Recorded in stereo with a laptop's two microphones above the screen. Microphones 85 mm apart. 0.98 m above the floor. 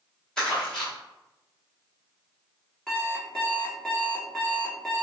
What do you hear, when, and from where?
0.4 s crumpling: 10° left (ahead or behind), 1.8 m
2.9 s an alarm clock: 10° left (ahead or behind), 1.1 m